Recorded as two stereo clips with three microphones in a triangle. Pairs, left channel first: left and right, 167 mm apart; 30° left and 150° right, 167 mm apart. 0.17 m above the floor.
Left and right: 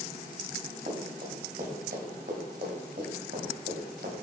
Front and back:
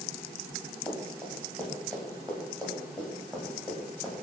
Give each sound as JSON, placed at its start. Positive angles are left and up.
{"t": 0.9, "sound": "running footsteps", "azimuth_deg": -55, "distance_m": 6.5}